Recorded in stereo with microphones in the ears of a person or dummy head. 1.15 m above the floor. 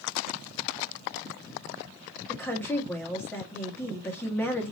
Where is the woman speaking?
5° left (ahead or behind), 1.4 m.